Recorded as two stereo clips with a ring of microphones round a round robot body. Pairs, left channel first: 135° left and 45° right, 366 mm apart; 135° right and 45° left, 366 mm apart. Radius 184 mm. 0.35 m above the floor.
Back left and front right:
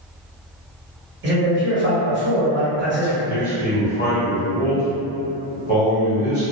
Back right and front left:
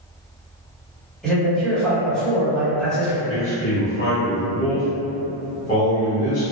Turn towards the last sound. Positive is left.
turn(degrees=175)